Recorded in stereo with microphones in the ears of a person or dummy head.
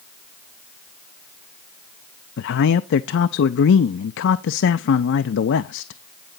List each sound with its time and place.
2.4 s a man speaking: 65° left (ahead or behind), 0.5 m